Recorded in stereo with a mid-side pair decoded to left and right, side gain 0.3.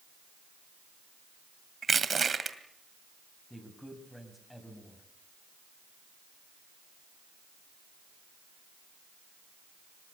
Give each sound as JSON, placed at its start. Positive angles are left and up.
{"t": 1.8, "sound": "crushing", "azimuth_deg": -55, "distance_m": 2.0}
{"t": 3.5, "sound": "a man speaking", "azimuth_deg": 10, "distance_m": 8.0}